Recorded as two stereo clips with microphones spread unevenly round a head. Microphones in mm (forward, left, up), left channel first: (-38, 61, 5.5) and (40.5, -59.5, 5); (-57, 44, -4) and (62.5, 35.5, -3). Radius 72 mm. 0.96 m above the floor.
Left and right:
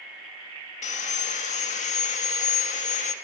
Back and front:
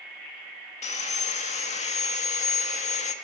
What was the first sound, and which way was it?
Sawing, 160° left.